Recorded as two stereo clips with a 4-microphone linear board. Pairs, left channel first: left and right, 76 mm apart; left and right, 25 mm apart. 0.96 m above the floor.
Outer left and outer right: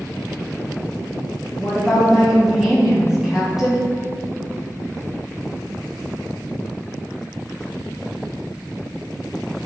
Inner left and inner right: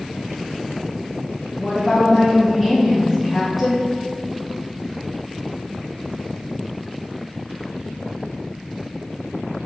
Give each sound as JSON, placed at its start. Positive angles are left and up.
{"t": 1.6, "sound": "a woman speaking", "side_deg": -5, "distance_m": 1.2}